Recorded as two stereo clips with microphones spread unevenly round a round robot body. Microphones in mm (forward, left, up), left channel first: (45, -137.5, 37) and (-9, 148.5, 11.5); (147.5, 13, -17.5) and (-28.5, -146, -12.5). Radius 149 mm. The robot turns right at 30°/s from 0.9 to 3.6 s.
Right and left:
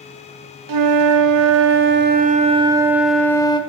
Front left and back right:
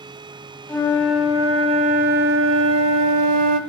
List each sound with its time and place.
0.7 s a flute: 125° left, 0.7 m; by 3.6 s 155° right, 0.7 m